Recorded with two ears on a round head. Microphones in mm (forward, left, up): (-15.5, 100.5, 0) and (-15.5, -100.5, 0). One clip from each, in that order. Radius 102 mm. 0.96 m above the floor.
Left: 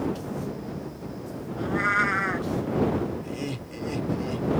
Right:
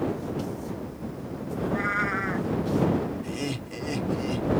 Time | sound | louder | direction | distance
1.6 | a cat meowing | left 3 dB | 30° left (ahead or behind) | ?
3.2 | laughter | right 1 dB | 20° right (ahead or behind) | ?